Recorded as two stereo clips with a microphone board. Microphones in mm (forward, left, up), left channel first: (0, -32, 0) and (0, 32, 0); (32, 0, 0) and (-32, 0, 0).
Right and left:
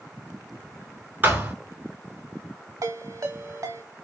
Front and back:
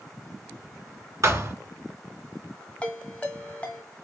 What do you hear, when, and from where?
1.2 s a thud: 150° left, 1.2 m
2.8 s a ringtone: 65° left, 0.7 m